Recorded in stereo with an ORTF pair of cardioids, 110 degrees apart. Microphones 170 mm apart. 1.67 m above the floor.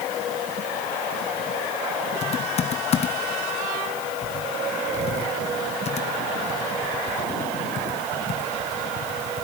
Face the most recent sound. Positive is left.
turn(degrees=40)